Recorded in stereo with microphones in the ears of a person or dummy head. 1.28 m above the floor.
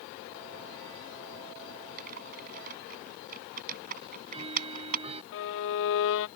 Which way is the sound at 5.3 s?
65° left (ahead or behind).